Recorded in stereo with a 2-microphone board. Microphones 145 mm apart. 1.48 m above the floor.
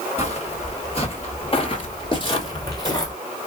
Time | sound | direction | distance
0.2 | footsteps | 40° left (ahead or behind) | 2.0 m